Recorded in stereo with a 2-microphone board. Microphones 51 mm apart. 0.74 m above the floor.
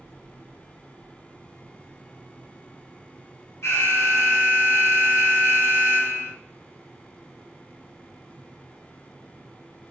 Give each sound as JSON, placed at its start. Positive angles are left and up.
{"t": 3.6, "sound": "an alarm", "side_deg": 70, "distance_m": 3.5}